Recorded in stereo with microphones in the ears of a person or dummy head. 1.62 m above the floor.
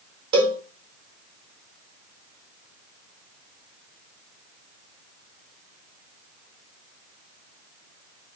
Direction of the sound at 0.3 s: 20° right (ahead or behind).